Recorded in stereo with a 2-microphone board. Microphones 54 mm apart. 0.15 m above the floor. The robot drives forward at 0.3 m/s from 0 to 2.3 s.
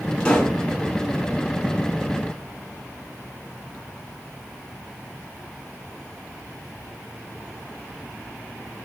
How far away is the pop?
About 0.9 m.